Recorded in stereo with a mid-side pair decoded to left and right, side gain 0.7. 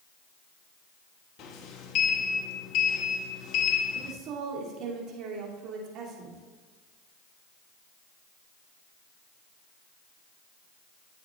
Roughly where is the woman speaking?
Ahead right.